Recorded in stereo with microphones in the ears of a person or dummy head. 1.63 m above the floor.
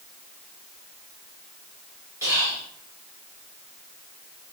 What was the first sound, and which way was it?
Whispering, 10° right (ahead or behind).